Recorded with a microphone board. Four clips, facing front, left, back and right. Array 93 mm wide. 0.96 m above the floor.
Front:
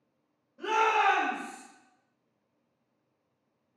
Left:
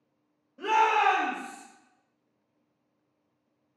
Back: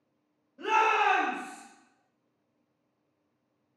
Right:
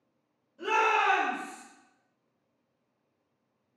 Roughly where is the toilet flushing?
No toilet flushing in this recording.